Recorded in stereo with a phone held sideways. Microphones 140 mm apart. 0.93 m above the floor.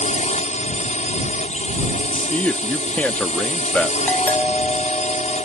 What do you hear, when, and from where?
0.0 s a drone: 50° left (ahead or behind)
2.1 s a man speaking: 10° left (ahead or behind)
4.1 s a doorbell: 10° left (ahead or behind)